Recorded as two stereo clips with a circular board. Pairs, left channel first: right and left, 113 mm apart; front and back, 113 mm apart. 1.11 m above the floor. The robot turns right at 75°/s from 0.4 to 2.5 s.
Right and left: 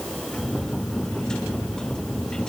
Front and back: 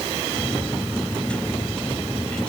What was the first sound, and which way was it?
Only background noise.